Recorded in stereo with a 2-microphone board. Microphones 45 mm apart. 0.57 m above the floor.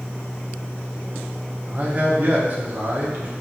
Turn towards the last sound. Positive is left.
turn(degrees=-40)  # may be behind; listen again after turning